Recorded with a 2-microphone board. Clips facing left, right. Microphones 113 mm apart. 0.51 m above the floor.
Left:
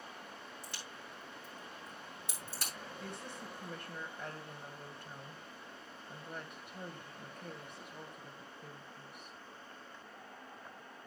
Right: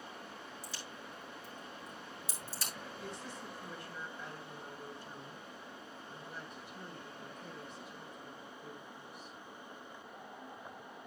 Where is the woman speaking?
60° left (ahead or behind), 2.5 m.